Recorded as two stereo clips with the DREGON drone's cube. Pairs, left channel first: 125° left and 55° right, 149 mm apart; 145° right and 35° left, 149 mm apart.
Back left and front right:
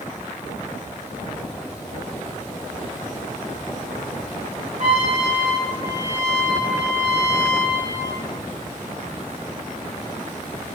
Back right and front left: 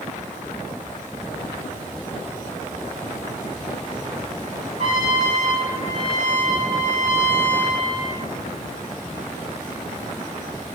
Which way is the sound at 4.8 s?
10° right.